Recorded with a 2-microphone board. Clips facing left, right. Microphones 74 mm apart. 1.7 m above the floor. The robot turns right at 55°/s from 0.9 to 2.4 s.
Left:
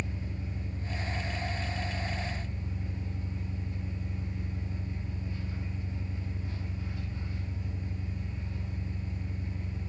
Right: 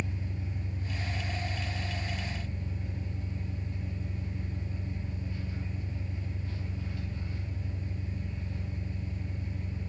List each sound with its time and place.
0.0 s an engine running: 60° left, 0.9 m; by 9.9 s 140° left, 0.9 m